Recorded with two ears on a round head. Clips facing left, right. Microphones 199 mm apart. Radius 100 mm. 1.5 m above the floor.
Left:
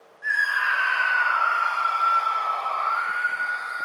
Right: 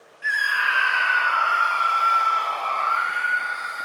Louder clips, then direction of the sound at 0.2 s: Right 1 dB; 40° right (ahead or behind).